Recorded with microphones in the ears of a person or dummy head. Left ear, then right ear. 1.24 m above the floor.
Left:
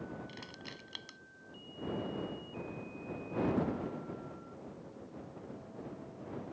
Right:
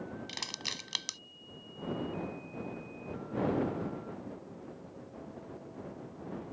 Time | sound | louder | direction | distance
0.3 | crushing | right 10 dB | 50° right (ahead or behind) | ?